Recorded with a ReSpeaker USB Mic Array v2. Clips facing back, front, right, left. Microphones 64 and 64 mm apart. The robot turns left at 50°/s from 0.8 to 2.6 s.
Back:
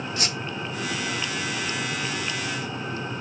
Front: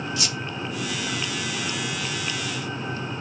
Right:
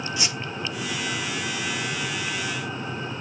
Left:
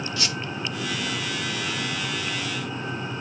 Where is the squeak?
155° right, 0.7 m.